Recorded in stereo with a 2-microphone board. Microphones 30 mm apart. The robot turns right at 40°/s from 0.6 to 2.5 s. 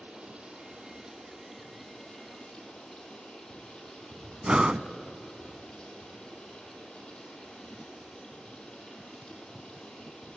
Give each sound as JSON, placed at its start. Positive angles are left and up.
{"t": 0.0, "sound": "running water", "azimuth_deg": -40, "distance_m": 7.0}
{"t": 4.4, "sound": "breathing", "side_deg": -30, "distance_m": 0.5}